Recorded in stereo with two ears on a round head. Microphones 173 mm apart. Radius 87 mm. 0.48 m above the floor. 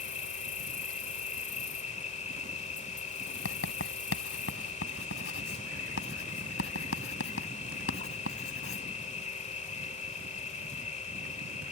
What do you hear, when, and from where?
0.0 s an insect: 40° left (ahead or behind)
3.5 s writing: 75° left (ahead or behind)